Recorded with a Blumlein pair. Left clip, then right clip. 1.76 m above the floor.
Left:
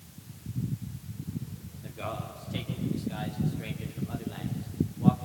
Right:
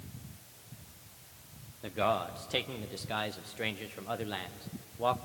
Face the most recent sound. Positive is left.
turn(degrees=-30)